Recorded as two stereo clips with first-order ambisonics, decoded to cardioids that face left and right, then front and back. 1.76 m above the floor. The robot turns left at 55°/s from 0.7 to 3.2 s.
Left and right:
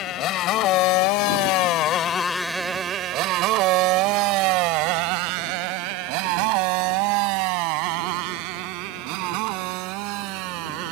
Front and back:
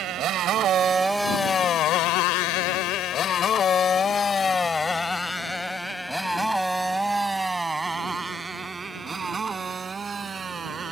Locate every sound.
0.0 s a motorcycle: 135° left; by 10.9 s 110° right